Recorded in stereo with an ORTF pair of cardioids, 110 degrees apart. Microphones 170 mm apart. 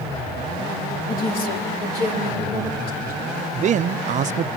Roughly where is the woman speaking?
Ahead left.